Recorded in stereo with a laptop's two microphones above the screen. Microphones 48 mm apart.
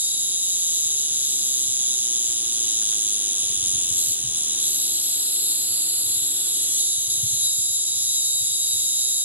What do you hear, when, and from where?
0.0 s an insect: 40° right (ahead or behind), 1.0 m